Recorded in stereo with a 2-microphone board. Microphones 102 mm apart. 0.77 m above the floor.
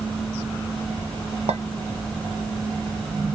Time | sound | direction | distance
1.5 | a clink | 85° right | 0.5 m